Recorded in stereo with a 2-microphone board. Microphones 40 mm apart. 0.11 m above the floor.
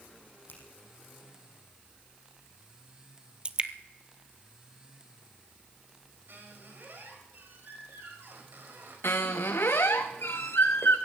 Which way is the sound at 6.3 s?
60° right (ahead or behind).